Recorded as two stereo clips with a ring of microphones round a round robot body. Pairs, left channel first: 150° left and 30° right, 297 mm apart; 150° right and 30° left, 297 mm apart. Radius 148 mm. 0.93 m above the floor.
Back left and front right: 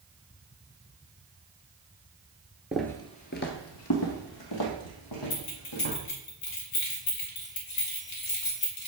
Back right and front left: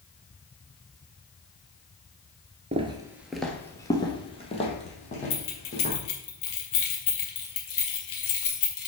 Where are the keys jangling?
175° right, 1.7 m.